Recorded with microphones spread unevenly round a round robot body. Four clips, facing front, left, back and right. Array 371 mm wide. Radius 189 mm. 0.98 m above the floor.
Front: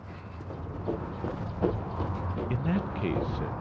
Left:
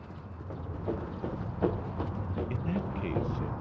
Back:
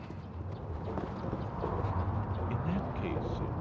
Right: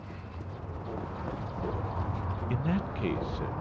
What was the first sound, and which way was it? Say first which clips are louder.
Running footsteps: left 4 dB, front 6 dB; 20° left.